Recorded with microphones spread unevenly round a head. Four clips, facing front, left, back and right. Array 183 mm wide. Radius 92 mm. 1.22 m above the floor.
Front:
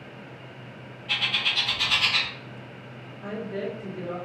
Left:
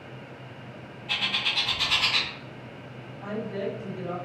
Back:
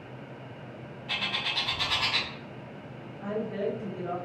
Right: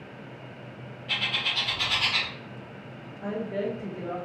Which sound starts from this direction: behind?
A bird, at 1.1 s.